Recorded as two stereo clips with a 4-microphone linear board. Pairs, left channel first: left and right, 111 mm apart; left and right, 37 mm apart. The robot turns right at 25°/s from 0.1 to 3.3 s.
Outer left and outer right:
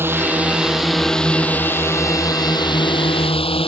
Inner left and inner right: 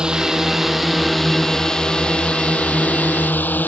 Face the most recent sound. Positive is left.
turn(degrees=60)